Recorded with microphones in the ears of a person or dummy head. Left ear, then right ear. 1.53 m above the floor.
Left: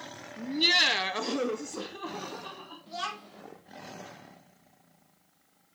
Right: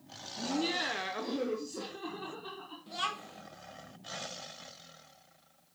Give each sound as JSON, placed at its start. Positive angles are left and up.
{"t": 0.4, "sound": "laughter", "side_deg": 45, "distance_m": 1.4}
{"t": 2.9, "sound": "a child speaking", "side_deg": -5, "distance_m": 1.7}